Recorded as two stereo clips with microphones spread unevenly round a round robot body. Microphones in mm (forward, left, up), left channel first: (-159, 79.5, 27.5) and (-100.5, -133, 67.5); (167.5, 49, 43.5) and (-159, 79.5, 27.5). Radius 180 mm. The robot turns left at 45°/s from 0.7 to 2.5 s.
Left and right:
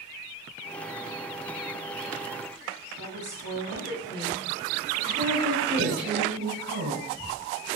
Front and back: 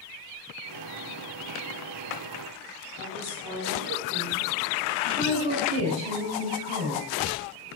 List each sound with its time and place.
3.0 s a woman speaking: 35° right, 4.5 m
5.0 s a woman speaking: 115° right, 4.5 m